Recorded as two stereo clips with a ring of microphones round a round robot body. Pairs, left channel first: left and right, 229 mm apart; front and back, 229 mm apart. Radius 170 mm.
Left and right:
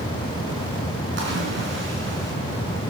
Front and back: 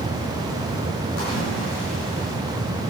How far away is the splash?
About 6 m.